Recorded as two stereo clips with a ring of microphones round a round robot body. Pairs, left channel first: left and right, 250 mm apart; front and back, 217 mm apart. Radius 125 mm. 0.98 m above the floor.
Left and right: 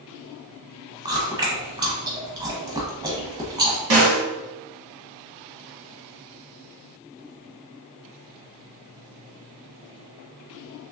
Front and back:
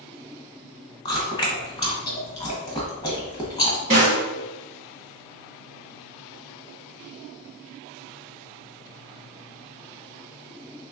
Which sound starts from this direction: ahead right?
Chewing, at 1.1 s.